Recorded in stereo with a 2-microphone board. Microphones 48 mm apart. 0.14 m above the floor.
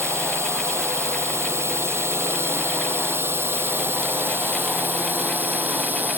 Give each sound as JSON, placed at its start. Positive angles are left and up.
{"t": 0.0, "sound": "a drone", "side_deg": -70}